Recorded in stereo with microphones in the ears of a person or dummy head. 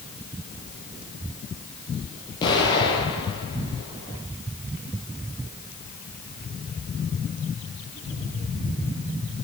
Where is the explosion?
20° left (ahead or behind), 9 m.